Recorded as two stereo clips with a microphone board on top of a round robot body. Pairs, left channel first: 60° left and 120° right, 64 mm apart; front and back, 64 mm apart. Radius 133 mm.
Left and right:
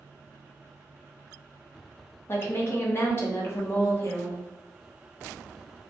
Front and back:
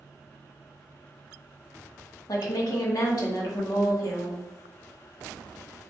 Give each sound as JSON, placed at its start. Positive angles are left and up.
{"t": 2.3, "sound": "a woman speaking", "azimuth_deg": 10, "distance_m": 1.2}